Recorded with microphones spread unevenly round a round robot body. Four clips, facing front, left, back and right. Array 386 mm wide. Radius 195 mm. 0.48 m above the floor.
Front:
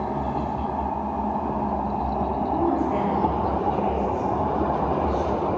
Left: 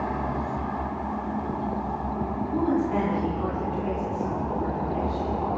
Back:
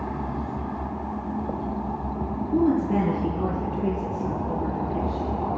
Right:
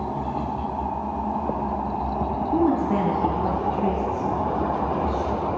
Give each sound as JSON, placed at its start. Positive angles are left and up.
{"t": 2.5, "sound": "a woman speaking", "azimuth_deg": -135, "distance_m": 5.0}